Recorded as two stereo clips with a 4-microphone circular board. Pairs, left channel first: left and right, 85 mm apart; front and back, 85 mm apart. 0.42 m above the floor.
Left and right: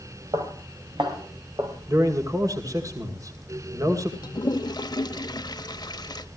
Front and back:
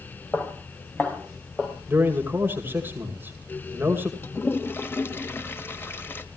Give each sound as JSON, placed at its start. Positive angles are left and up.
{"t": 0.3, "sound": "footsteps", "azimuth_deg": -75, "distance_m": 3.0}
{"t": 1.9, "sound": "a man speaking", "azimuth_deg": -120, "distance_m": 2.0}
{"t": 4.2, "sound": "a toilet flushing", "azimuth_deg": 60, "distance_m": 0.9}